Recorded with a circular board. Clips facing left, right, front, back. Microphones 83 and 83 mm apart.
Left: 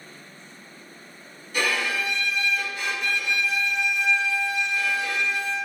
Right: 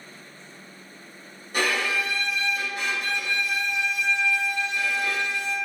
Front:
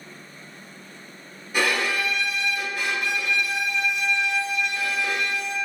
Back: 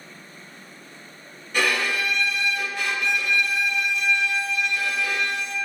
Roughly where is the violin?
Right.